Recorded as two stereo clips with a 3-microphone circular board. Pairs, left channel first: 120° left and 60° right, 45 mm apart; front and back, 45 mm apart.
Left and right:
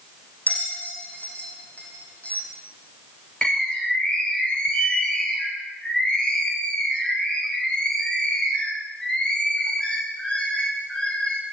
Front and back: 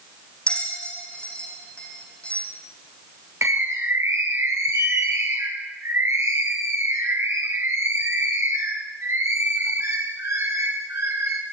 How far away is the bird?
About 6 m.